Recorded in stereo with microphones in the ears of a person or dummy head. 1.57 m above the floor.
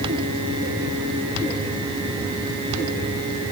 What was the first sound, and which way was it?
Only background noise.